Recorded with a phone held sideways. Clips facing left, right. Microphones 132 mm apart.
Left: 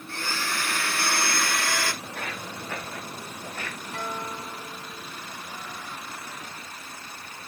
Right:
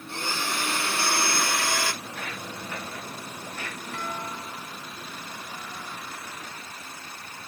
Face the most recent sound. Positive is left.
turn(degrees=25)  # may be behind; listen again after turning